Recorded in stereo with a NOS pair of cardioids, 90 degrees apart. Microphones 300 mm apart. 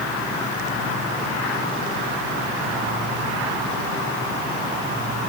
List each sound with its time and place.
Only background noise.